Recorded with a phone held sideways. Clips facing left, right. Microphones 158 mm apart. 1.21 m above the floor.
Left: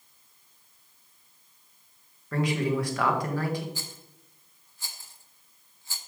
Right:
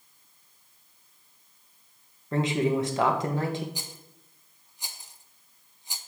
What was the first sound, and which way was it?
A man speaking, 25° right (ahead or behind).